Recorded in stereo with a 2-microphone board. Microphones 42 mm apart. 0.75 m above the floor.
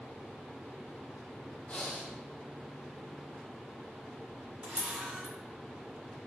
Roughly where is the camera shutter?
Right.